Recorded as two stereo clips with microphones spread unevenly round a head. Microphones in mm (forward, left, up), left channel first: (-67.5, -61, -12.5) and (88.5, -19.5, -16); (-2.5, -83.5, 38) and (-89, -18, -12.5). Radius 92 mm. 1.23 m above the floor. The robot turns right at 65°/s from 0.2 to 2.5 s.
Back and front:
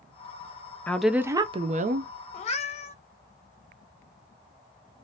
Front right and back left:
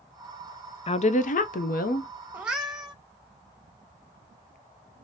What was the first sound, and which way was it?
A woman speaking, 85° right.